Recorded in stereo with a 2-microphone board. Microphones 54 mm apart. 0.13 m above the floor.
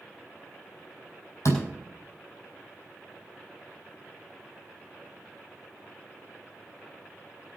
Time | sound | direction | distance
1.4 | a door slam | 65° left (ahead or behind) | 4.5 m